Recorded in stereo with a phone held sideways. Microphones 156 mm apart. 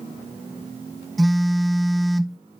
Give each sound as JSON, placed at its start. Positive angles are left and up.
{"t": 1.2, "sound": "a phone buzzing", "side_deg": 0, "distance_m": 0.6}